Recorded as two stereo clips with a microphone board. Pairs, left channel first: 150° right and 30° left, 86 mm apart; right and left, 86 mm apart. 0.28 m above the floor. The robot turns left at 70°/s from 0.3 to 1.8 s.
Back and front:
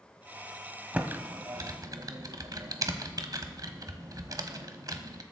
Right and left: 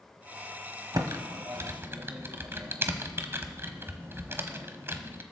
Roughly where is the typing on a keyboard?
Left.